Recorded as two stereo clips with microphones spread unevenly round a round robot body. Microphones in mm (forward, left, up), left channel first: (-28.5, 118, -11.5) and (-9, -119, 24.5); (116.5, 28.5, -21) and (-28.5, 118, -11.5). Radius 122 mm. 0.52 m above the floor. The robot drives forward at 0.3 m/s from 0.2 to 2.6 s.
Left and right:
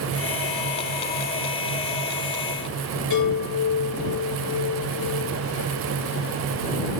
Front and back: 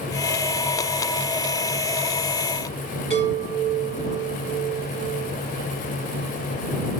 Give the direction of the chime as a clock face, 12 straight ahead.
9 o'clock.